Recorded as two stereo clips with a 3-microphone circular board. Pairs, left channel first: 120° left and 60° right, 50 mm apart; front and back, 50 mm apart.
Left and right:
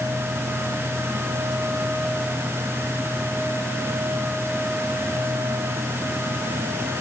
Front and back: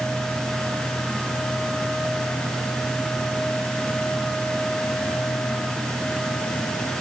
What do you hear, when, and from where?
Only background noise.